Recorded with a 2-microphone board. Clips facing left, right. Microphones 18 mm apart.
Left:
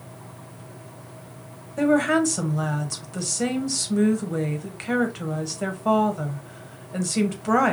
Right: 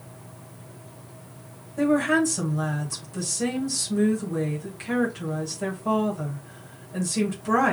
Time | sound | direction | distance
1.8 | a woman speaking | 30° left (ahead or behind) | 1.3 m